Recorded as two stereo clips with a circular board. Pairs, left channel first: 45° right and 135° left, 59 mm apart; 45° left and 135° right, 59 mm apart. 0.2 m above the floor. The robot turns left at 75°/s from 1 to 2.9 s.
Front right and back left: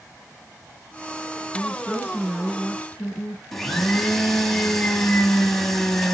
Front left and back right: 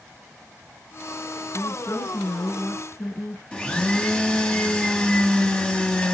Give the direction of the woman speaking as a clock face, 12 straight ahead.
8 o'clock.